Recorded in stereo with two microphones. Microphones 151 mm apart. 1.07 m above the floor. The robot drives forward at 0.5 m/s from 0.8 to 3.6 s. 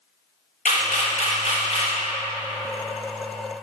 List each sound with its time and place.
0.7 s a camera shutter: 60° left (ahead or behind), 1.4 m; by 1.9 s 45° left (ahead or behind), 1.7 m